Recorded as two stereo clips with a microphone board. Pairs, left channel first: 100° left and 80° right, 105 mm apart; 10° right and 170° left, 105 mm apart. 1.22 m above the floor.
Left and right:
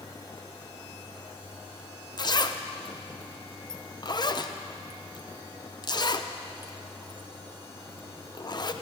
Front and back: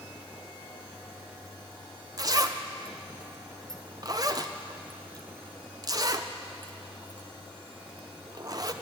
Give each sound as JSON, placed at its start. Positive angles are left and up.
{"t": 2.2, "sound": "a zipper", "azimuth_deg": 130, "distance_m": 0.5}